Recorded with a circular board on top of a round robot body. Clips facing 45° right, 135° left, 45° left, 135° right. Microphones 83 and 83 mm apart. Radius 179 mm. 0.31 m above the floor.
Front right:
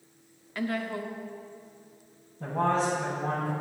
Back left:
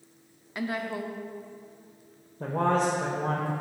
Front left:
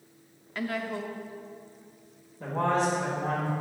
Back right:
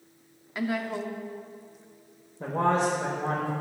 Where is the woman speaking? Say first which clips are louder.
Even, back right 2 dB; 170° left, 1.1 m.